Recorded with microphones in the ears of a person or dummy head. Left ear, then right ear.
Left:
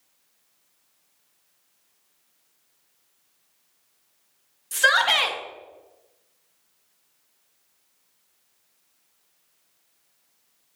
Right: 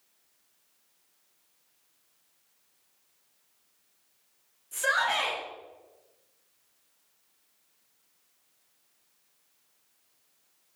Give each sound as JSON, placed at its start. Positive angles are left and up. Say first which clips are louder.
{"t": 4.7, "sound": "a shout", "louder": "left 8 dB", "side_deg": 45, "distance_m": 1.5}